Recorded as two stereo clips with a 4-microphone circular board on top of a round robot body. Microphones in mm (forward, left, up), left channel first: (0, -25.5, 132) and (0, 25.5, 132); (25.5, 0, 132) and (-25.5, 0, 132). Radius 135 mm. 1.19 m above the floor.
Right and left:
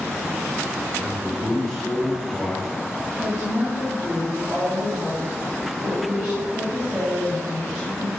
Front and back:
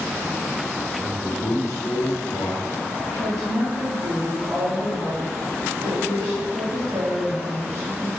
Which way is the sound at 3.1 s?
150° left.